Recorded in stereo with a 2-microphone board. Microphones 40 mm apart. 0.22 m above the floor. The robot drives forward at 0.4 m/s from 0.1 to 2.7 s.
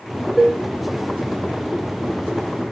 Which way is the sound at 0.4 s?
10° right (ahead or behind).